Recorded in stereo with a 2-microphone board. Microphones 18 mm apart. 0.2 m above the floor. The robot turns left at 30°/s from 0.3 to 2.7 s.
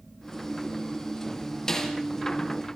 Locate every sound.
1.7 s a snare drum: 30° left (ahead or behind), 4.5 m; by 1.9 s 40° left (ahead or behind), 4.5 m